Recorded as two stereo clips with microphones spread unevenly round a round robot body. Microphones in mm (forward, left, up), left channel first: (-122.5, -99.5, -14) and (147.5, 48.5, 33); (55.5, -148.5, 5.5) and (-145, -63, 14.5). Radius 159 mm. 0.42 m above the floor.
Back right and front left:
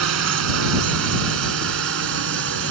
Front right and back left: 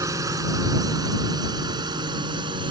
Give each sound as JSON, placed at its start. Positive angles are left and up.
{"t": 0.0, "sound": "a drone", "azimuth_deg": 75}